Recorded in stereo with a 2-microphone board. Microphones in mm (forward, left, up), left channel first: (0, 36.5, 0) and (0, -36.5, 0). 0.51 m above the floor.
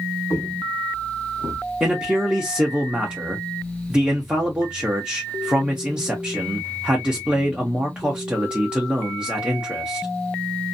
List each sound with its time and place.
0.3 s footsteps: 55° left (ahead or behind), 1.3 m; by 1.6 s 50° right (ahead or behind), 1.2 m
1.8 s a man speaking: 15° right (ahead or behind), 0.8 m